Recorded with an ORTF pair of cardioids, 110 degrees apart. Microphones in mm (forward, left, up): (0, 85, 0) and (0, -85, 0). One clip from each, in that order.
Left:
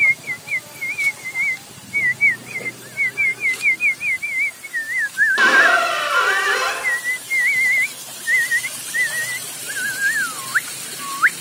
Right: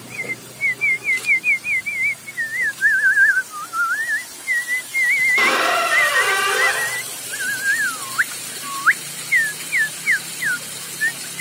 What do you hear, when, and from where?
5.4 s a squeak: 5° left, 1.4 m